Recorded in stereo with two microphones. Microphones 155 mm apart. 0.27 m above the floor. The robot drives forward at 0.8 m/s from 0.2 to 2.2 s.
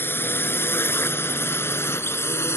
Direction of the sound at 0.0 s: 15° left (ahead or behind).